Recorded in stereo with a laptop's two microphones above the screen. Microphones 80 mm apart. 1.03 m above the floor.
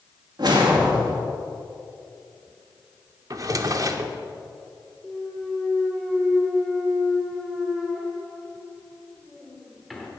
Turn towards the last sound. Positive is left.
turn(degrees=0)  # may be behind; listen again after turning